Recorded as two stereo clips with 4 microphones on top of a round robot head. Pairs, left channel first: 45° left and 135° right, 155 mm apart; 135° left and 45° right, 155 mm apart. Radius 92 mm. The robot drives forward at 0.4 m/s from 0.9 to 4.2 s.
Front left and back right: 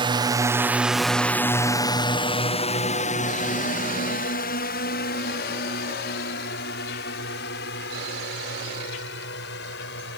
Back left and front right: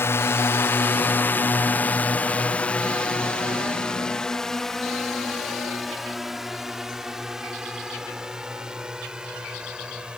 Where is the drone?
160° right; by 10.2 s 40° left.